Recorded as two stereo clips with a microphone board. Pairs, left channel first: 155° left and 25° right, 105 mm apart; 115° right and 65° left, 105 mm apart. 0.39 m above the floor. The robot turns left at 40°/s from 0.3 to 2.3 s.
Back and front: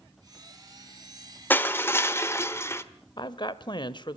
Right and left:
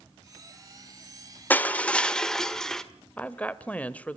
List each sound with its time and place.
1.5 s crushing: 160° right, 1.3 m; by 2.8 s 170° left, 1.3 m
3.2 s a woman speaking: 175° left, 1.3 m